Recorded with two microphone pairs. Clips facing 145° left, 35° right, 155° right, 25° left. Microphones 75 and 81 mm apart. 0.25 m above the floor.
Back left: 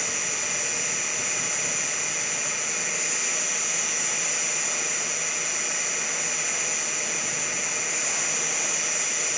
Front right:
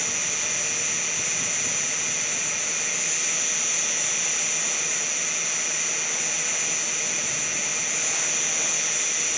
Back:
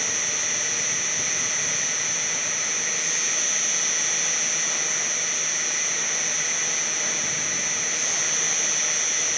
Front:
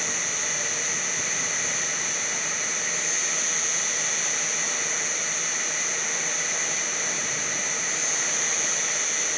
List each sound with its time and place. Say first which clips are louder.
0.0 s an insect: back left 1 dB, even; 30° right, 2 m